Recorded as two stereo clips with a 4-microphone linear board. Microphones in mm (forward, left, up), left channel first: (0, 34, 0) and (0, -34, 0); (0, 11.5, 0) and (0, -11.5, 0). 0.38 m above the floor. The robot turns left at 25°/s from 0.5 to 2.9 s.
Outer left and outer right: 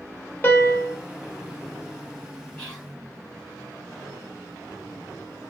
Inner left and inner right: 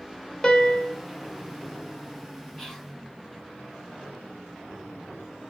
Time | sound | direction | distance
0.4 | a piano | 30° left (ahead or behind) | 0.7 m
2.6 | whispering | 20° left (ahead or behind) | 1.8 m